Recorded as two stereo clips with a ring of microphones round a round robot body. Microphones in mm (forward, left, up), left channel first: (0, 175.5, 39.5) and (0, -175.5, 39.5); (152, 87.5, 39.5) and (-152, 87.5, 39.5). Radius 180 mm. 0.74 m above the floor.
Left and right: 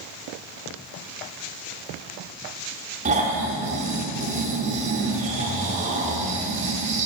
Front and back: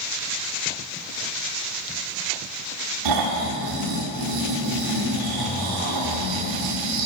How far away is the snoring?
About 1.6 m.